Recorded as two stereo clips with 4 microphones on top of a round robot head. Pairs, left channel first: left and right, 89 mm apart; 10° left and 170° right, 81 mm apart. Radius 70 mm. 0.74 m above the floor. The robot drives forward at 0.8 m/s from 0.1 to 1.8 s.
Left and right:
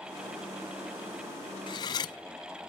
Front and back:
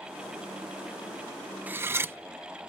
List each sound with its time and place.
1.7 s cutlery clinking: 125° left, 0.6 m; by 2.2 s 130° left, 0.7 m